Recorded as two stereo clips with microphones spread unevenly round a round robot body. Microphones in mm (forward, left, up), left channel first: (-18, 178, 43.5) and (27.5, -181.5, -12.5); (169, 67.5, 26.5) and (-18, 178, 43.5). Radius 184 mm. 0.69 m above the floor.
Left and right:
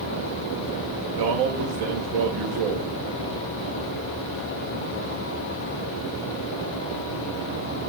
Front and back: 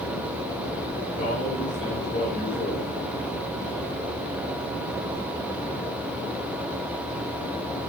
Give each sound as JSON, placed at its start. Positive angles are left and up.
{"t": 1.2, "sound": "a man speaking", "azimuth_deg": -100, "distance_m": 2.5}